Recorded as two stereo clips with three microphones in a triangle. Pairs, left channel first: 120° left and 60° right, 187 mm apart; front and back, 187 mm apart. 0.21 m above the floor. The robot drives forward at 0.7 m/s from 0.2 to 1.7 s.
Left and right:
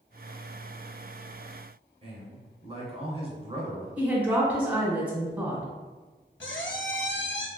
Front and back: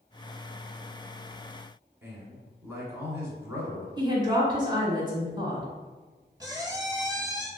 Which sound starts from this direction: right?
A man speaking, at 2.0 s.